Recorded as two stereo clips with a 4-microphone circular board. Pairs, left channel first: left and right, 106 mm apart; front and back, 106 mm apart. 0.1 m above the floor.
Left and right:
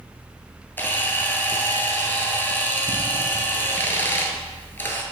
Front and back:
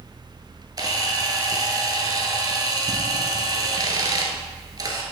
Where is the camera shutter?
150° left, 0.9 m.